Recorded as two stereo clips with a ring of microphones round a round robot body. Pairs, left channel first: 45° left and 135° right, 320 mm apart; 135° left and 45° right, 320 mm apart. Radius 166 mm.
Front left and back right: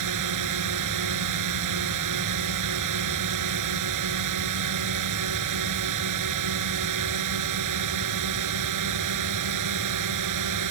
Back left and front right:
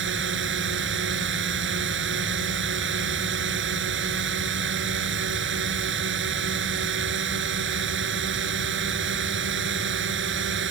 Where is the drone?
100° right.